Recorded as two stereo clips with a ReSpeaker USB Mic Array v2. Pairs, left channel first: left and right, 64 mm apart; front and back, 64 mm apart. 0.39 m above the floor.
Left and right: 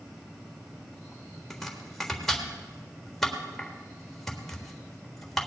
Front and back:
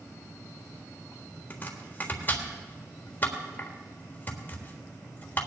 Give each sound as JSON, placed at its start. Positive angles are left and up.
{"t": 1.5, "sound": "chopping", "azimuth_deg": 10, "distance_m": 1.5}